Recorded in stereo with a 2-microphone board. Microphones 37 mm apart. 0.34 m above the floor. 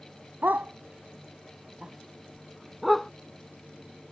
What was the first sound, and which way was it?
A dog barking, 65° right (ahead or behind).